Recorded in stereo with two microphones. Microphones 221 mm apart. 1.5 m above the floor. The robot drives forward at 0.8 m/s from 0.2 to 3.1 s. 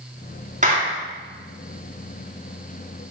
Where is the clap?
35° right (ahead or behind), 3 m; by 1.0 s 30° right (ahead or behind), 3.5 m.